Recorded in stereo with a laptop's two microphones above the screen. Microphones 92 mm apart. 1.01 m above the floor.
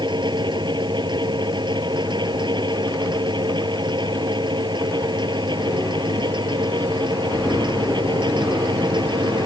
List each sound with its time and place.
0.0 s a fan: 55° right (ahead or behind)